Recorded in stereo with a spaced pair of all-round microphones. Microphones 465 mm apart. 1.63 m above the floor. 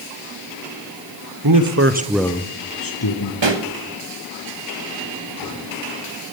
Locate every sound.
1.4 s a man speaking: 45° right (ahead or behind), 1.2 m; by 3.3 s 60° left (ahead or behind), 1.4 m
3.4 s a pop: 60° right (ahead or behind), 1.3 m